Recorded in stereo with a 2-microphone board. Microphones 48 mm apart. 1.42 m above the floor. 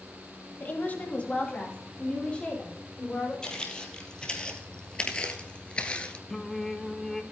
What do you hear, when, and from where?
0.6 s a woman speaking: 45° left (ahead or behind), 1.7 m; by 3.3 s 20° left (ahead or behind), 6 m
3.4 s footsteps: 20° left (ahead or behind), 3 m; by 6.2 s 25° left (ahead or behind), 1.5 m
6.3 s singing: 10° left (ahead or behind), 0.9 m